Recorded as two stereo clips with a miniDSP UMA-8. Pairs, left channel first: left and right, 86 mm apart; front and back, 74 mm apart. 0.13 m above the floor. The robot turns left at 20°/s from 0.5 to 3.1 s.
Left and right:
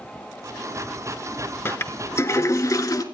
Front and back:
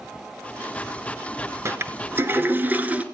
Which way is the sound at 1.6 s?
145° left.